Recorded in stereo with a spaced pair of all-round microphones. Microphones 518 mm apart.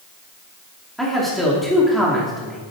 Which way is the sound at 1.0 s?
Centre (ahead or behind).